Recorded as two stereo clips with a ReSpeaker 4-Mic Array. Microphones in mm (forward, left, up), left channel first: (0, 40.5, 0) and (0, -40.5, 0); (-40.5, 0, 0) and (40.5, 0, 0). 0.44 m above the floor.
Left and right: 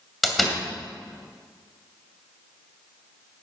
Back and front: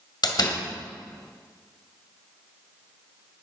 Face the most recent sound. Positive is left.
turn(degrees=180)